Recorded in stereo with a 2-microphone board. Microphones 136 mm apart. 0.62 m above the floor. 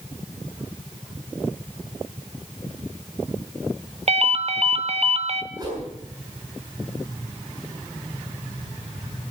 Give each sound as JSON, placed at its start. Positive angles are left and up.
{"t": 4.1, "sound": "a ringtone", "side_deg": -50, "distance_m": 0.9}
{"t": 5.5, "sound": "a whoosh", "side_deg": -30, "distance_m": 6.5}